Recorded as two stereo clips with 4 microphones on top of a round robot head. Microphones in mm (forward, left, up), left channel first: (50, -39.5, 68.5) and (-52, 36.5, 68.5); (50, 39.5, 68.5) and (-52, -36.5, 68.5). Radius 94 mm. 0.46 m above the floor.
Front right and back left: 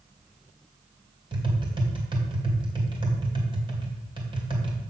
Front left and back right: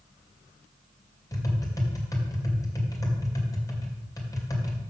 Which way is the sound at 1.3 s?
95° left.